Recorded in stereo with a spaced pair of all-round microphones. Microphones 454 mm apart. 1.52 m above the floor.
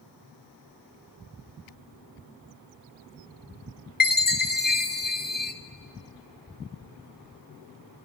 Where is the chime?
20° left (ahead or behind), 0.6 m.